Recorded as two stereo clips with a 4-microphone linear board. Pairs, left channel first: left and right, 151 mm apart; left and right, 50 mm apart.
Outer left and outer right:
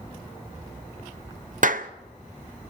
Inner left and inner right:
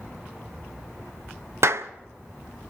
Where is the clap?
60° right (ahead or behind), 0.7 m.